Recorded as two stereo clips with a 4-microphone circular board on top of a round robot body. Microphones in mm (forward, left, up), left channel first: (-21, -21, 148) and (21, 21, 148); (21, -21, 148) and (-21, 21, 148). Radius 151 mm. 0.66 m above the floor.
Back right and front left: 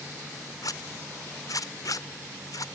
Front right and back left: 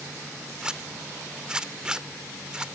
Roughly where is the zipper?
Behind right.